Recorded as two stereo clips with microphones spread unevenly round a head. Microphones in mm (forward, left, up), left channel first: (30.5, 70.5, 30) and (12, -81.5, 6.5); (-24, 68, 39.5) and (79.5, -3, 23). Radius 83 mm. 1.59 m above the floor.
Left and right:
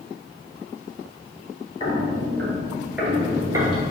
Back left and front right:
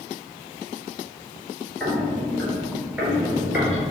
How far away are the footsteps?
About 1.8 m.